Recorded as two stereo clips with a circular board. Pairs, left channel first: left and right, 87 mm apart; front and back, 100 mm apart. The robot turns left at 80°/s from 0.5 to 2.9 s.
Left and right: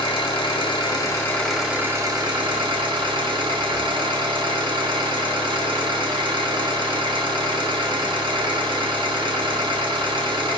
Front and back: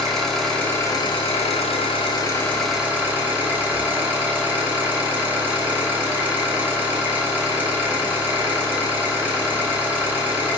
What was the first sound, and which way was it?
An engine running, 85° left.